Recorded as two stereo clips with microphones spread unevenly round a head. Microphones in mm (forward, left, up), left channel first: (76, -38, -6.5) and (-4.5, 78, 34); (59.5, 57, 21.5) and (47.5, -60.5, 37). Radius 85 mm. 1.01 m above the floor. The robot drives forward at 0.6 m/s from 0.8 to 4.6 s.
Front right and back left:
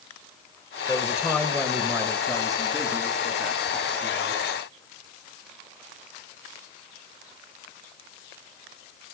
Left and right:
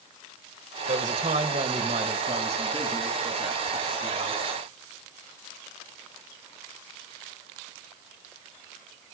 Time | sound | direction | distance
0.9 | a man speaking | 135° right | 0.9 m